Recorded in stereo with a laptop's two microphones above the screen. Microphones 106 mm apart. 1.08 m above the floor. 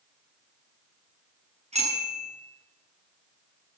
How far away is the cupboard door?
I don't hear a cupboard door.